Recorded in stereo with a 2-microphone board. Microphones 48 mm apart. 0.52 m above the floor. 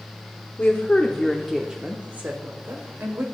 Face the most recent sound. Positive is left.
turn(degrees=-65)  # may be behind; listen again after turning